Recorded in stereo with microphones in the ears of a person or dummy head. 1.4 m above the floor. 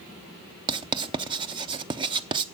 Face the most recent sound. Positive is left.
turn(degrees=-25)  # may be behind; listen again after turning